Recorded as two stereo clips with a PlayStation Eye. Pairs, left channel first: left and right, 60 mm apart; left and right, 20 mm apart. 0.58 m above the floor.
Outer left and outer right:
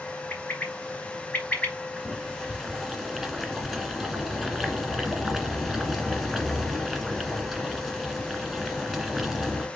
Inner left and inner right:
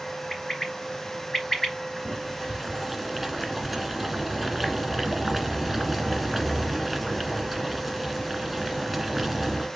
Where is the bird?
30° left (ahead or behind), 2.5 m.